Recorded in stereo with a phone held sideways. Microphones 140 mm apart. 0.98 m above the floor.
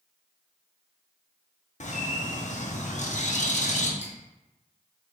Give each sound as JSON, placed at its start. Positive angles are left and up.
{"t": 1.8, "sound": "a bird", "side_deg": 60, "distance_m": 0.6}
{"t": 4.0, "sound": "dripping", "side_deg": 60, "distance_m": 1.7}